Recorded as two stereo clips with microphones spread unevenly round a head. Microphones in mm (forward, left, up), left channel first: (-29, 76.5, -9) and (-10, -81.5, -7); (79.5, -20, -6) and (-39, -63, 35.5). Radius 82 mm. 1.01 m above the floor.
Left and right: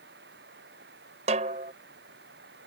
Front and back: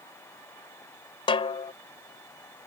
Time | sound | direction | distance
0.0 | running water | 50° right | ?
1.3 | a snare drum | 30° right | ?